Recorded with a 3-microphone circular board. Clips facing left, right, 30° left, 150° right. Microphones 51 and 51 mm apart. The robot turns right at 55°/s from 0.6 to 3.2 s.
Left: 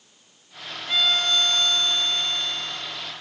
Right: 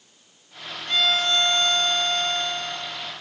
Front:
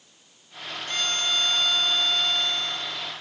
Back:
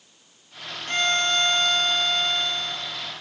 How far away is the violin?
About 0.9 m.